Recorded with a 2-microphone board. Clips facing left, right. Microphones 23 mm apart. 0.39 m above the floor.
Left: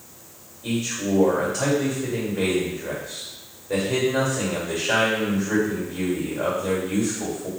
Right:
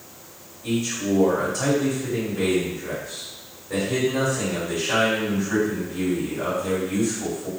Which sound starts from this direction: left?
A man speaking, at 0.6 s.